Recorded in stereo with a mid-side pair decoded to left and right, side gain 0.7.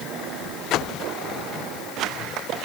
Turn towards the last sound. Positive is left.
No sound to turn to.